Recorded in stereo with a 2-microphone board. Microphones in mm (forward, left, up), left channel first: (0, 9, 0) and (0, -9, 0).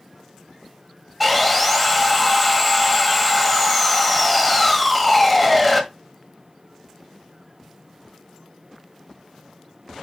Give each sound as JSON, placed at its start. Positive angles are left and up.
{"t": 1.2, "sound": "sawing", "side_deg": 0, "distance_m": 1.7}